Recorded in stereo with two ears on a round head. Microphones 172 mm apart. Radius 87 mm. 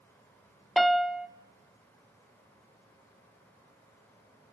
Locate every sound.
0.8 s a piano: centre (ahead or behind), 0.9 m